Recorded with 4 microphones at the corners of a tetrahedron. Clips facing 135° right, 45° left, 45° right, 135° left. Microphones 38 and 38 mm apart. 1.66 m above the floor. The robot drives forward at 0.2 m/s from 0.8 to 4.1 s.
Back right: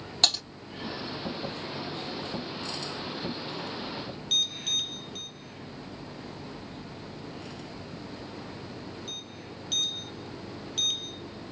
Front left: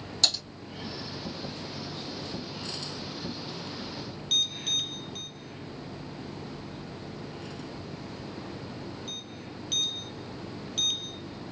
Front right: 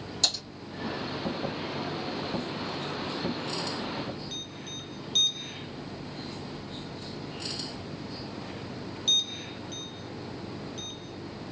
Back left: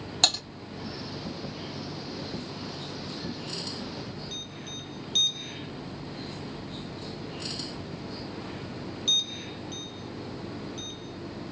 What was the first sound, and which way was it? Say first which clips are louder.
Typing on a keyboard: back right 2 dB, back left 4 dB; 170° left.